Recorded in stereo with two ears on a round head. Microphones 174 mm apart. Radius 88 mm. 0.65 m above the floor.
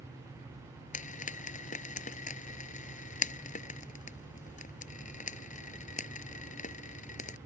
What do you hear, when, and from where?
0.9 s frying: 40° left (ahead or behind)